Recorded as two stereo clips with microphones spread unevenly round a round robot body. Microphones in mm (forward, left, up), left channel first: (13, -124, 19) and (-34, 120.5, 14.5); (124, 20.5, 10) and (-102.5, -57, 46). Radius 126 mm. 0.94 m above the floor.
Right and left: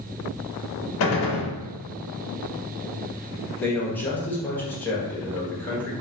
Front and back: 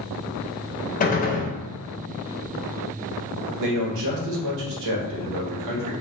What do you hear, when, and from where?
1.0 s a gunshot: 40° right, 0.6 m
3.6 s a man speaking: 160° right, 0.7 m